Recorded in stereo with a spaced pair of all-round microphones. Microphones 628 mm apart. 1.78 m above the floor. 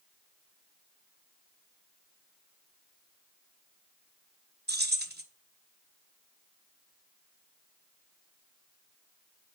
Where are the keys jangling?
15° right (ahead or behind), 1.1 m.